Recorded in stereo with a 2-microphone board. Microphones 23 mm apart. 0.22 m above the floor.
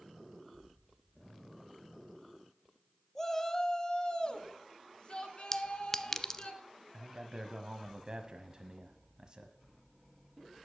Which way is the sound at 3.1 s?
15° left (ahead or behind).